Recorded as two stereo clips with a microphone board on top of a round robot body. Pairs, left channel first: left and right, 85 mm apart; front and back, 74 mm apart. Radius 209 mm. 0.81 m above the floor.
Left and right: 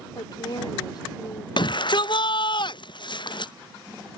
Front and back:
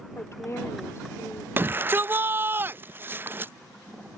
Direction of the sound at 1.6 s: 115° left.